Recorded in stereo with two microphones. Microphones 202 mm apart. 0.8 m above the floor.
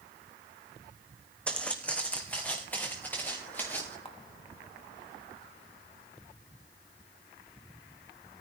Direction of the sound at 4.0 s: 30° left (ahead or behind).